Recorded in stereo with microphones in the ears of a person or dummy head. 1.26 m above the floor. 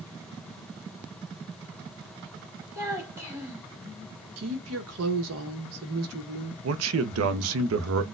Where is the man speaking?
80° right, 0.6 m.